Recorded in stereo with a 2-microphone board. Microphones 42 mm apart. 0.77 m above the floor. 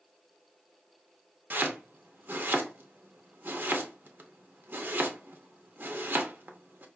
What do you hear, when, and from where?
1.5 s chopping: 55° right (ahead or behind), 0.6 m